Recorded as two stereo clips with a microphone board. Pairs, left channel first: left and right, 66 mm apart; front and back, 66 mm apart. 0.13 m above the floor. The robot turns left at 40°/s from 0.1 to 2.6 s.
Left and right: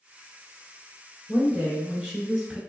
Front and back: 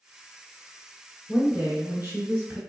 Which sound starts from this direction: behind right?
A woman speaking, at 1.3 s.